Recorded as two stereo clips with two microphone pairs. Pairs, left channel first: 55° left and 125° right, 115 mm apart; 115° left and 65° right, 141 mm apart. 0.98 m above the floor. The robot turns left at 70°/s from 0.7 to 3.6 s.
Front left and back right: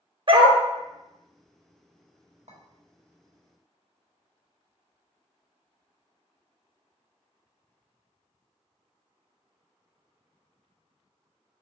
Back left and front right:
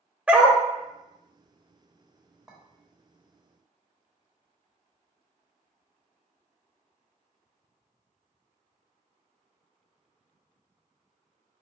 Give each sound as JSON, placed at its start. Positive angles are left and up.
{"t": 0.3, "sound": "a dog barking", "azimuth_deg": -140, "distance_m": 0.7}
{"t": 2.5, "sound": "a clink", "azimuth_deg": -145, "distance_m": 1.1}